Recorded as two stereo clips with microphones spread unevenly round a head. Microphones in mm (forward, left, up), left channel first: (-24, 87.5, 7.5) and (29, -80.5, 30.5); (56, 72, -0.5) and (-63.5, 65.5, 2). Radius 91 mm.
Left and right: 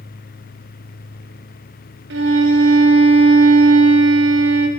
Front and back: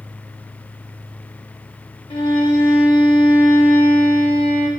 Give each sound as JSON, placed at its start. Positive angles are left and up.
{"t": 2.1, "sound": "a violin", "azimuth_deg": -55, "distance_m": 1.0}